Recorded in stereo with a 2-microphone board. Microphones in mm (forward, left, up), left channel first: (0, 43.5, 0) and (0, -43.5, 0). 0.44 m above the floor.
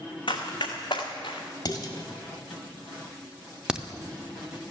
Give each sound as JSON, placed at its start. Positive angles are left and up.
{"t": 0.3, "sound": "running footsteps", "side_deg": 75, "distance_m": 1.7}
{"t": 1.6, "sound": "dishes clattering", "side_deg": 55, "distance_m": 1.5}
{"t": 3.7, "sound": "a crack", "side_deg": -10, "distance_m": 0.5}